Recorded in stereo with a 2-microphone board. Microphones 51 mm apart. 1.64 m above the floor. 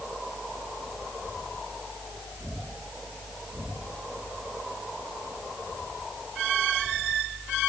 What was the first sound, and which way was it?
Only background noise.